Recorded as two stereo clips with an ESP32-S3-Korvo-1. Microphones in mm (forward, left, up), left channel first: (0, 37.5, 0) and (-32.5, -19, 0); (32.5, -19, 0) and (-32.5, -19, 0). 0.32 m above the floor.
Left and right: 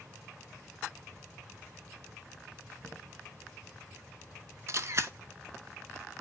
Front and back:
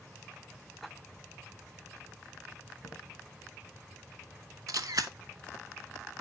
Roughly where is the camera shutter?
Behind.